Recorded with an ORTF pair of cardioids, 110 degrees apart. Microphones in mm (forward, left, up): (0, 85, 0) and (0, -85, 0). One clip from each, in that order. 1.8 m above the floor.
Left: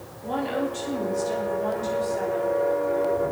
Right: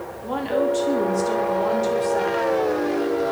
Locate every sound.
0.2 s a woman speaking: 15° right, 3.5 m; by 2.6 s 40° right, 5 m